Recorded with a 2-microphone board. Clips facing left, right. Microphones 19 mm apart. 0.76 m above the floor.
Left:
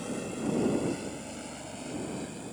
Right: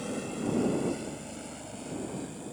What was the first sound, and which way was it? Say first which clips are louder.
A helicopter: even; 10° right (ahead or behind).